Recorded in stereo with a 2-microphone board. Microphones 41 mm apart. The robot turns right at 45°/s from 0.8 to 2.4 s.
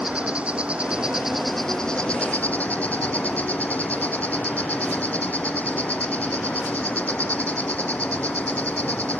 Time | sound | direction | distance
0.0 | an insect | 30° right | ?